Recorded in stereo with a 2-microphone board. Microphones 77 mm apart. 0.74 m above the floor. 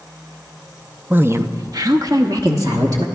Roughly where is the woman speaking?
Right.